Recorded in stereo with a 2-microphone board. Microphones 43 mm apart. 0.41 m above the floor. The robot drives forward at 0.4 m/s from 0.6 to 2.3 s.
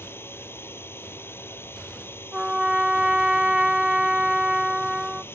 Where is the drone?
65° left (ahead or behind); by 5.3 s 60° left (ahead or behind).